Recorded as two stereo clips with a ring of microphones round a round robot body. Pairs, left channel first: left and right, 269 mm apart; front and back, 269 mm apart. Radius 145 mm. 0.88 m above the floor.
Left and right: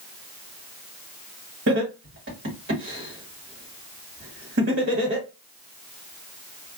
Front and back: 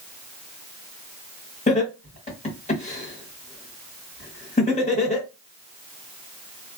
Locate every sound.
1.7 s laughter: 55° right, 1.5 m